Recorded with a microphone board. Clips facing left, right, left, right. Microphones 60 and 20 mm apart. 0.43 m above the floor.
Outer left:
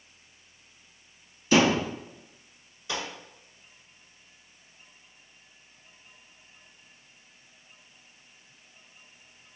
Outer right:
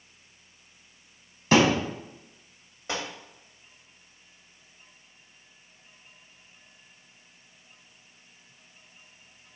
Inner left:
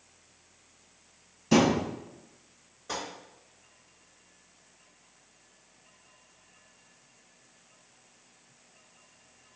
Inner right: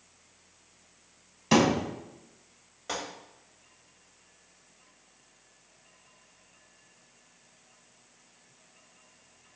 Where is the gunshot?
45° right (ahead or behind), 1.1 m.